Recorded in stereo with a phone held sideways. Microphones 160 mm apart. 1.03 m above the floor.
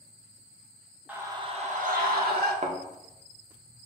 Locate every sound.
1.1 s a scream: 10° right (ahead or behind), 0.9 m; by 2.5 s 75° right (ahead or behind), 1.5 m
2.6 s a thud: 45° right (ahead or behind), 0.8 m